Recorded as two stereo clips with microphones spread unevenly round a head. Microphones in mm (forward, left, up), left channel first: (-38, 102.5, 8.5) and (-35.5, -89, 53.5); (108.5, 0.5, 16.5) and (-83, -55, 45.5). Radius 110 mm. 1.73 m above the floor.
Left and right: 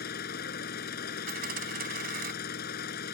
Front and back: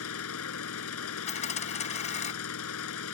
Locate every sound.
0.0 s an engine running: 40° left
1.3 s a dropped coin: 45° right